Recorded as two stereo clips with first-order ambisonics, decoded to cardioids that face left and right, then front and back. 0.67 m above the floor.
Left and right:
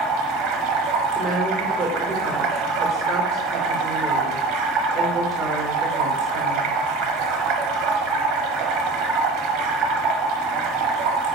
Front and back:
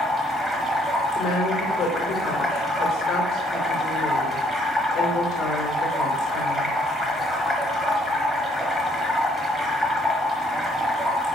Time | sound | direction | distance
0.0 | running water | 90° right | 1.2 m
1.1 | a woman speaking | 50° right | 2.5 m